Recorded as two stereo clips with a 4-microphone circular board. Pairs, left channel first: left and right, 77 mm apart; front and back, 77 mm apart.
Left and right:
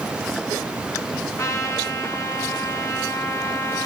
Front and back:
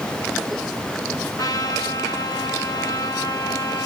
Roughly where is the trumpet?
Ahead left.